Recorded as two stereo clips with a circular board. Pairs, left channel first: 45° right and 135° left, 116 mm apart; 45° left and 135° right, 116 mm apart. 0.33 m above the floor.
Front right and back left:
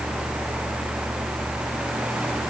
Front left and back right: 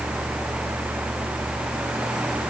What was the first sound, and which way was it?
Only background noise.